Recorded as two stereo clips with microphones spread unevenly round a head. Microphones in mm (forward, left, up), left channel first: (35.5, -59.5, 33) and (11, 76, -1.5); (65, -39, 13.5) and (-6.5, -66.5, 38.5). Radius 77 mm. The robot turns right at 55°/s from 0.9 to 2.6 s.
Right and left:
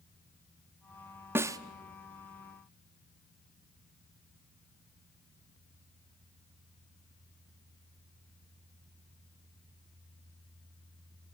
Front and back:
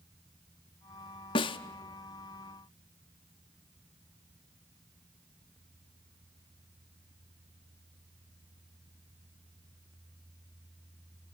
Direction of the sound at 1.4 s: 15° left.